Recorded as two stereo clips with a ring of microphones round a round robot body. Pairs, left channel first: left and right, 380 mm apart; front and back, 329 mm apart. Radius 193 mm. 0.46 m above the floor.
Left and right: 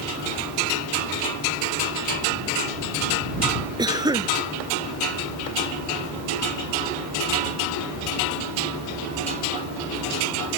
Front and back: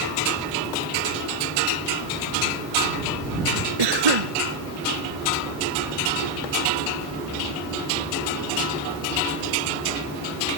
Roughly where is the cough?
Behind.